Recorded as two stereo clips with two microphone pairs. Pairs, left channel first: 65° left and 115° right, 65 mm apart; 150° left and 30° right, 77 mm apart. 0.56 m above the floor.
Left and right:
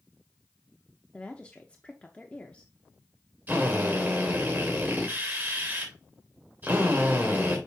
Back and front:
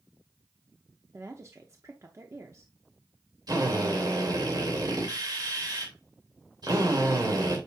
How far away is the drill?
About 2.5 m.